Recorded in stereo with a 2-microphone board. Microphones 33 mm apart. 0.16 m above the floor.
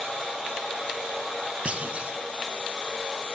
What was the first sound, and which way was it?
A clunk, 40° right (ahead or behind).